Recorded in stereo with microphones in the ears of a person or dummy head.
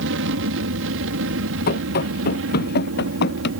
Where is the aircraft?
65° right (ahead or behind); by 3.6 s 70° right (ahead or behind).